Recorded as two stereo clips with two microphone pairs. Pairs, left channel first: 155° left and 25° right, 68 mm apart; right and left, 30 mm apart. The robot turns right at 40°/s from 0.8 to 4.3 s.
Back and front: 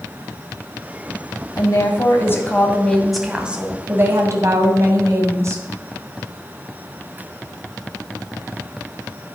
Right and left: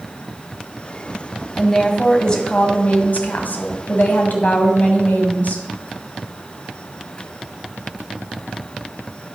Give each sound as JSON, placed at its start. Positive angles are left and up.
{"t": 1.6, "sound": "a woman speaking", "azimuth_deg": 180, "distance_m": 2.5}